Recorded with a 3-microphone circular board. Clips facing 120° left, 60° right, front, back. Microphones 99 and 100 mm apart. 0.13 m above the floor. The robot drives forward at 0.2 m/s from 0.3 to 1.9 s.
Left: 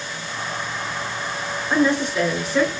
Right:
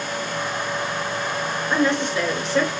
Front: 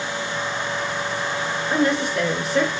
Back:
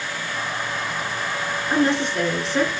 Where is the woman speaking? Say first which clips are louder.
Left 2 dB, back 1 dB; 160° right, 1.4 m.